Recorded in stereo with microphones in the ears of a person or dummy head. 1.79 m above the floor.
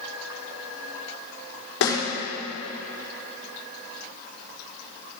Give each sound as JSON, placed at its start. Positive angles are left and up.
{"t": 1.8, "sound": "a snare drum", "side_deg": 85, "distance_m": 4.5}